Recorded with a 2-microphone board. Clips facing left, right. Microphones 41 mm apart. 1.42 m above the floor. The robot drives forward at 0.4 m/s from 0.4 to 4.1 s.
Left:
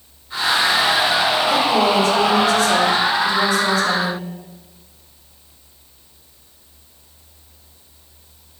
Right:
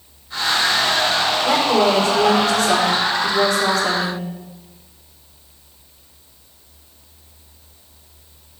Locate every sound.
1.4 s a woman speaking: 55° right (ahead or behind), 4.5 m; by 4.2 s 65° right (ahead or behind), 4 m